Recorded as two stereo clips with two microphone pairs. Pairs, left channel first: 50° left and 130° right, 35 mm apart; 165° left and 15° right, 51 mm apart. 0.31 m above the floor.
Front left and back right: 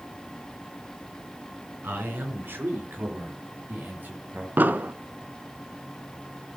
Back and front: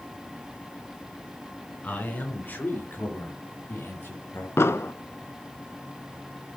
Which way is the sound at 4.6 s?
160° right.